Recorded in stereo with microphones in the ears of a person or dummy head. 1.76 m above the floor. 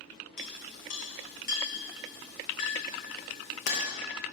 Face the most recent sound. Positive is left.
turn(degrees=40)  # may be behind; listen again after turning